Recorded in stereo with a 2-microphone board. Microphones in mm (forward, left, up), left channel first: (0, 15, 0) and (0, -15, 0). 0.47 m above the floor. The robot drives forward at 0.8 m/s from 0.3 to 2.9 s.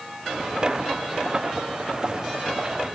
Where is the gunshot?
I don't hear a gunshot.